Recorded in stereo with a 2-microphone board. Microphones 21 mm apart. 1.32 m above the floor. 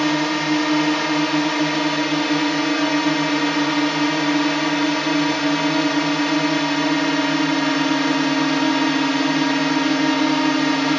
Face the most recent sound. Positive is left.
turn(degrees=5)  # may be behind; listen again after turning